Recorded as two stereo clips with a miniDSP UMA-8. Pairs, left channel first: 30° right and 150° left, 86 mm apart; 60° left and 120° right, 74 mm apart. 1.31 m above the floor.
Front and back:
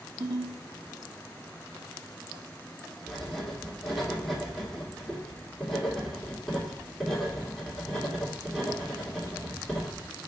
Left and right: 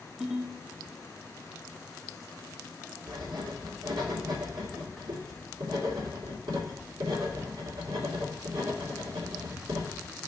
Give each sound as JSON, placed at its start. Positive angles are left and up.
{"t": 0.2, "sound": "a ringtone", "azimuth_deg": 160, "distance_m": 1.2}
{"t": 3.1, "sound": "writing", "azimuth_deg": -120, "distance_m": 2.5}